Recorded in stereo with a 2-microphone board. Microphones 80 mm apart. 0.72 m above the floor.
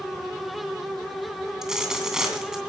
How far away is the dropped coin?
About 2.5 m.